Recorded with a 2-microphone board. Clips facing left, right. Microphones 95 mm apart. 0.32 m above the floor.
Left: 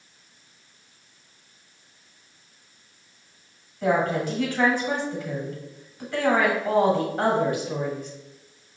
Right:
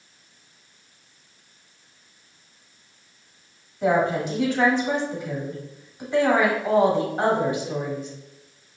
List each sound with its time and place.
3.8 s a woman speaking: 20° right (ahead or behind), 2 m